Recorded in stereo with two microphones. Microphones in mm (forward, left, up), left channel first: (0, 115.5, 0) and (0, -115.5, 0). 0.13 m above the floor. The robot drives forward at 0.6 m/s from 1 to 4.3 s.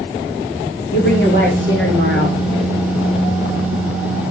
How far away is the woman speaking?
About 8 m.